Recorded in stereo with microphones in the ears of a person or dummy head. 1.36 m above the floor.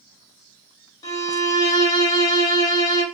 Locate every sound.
1.0 s a violin: 15° left (ahead or behind), 0.9 m